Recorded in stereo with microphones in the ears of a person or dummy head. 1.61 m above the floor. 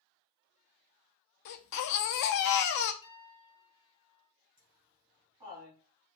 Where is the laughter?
20° right (ahead or behind), 3 m.